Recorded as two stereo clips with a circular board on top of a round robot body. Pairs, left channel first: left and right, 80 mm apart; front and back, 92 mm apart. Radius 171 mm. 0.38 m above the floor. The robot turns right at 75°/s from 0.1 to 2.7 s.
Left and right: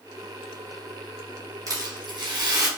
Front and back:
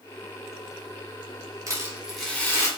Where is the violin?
No violin in this recording.